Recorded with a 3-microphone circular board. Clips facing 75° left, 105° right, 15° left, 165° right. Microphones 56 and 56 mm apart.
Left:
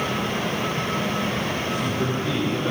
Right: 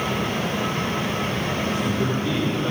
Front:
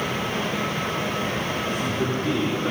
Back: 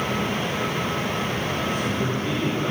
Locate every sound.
1.7 s a man speaking: 10° left, 9.5 m